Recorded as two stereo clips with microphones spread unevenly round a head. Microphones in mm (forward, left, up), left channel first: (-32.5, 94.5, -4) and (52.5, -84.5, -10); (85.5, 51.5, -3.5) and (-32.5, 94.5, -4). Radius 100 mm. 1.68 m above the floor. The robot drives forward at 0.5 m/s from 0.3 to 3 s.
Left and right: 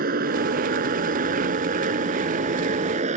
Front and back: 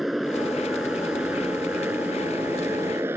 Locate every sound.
0.0 s a motorcycle: 110° right; by 3.2 s 120° right